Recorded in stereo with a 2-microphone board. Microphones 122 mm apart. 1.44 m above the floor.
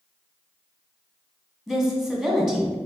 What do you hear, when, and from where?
1.7 s a woman speaking: centre (ahead or behind), 1.1 m